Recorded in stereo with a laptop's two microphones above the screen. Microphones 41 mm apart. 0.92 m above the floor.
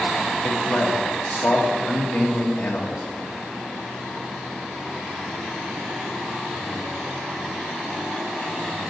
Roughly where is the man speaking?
Left.